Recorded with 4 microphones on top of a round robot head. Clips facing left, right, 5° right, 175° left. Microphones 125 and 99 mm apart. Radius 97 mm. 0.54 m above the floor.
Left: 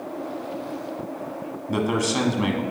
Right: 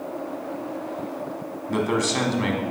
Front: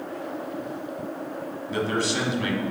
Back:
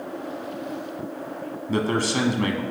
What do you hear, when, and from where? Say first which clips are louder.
1.7 s a man speaking: even, back 2 dB; 165° left, 0.9 m